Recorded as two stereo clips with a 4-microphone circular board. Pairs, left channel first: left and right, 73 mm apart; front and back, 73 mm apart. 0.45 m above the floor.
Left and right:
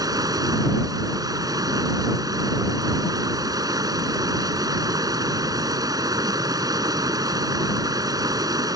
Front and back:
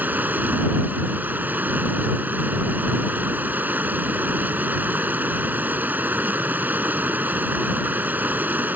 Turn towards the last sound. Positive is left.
turn(degrees=-115)